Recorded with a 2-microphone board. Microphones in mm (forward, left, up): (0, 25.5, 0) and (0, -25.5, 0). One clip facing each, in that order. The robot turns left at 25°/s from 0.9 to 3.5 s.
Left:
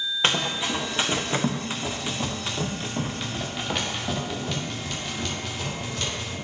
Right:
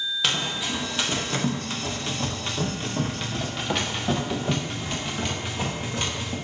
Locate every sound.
0.2 s running footsteps: 30° left (ahead or behind), 2 m; by 6.3 s 25° right (ahead or behind), 4 m